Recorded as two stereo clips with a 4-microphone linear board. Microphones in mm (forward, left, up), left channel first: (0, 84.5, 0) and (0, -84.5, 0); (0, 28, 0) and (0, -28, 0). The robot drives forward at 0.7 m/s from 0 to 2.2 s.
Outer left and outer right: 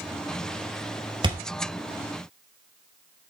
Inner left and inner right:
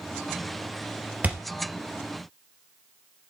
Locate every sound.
1.2 s a thud: 30° right (ahead or behind), 2.5 m; by 1.4 s 25° right (ahead or behind), 2.5 m